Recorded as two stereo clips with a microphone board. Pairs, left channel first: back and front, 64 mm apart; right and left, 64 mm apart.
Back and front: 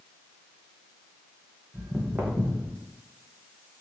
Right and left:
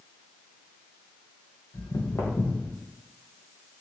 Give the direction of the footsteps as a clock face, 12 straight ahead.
3 o'clock.